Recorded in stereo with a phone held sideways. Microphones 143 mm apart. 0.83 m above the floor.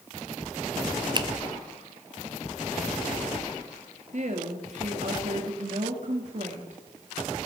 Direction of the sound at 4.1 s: 55° right (ahead or behind).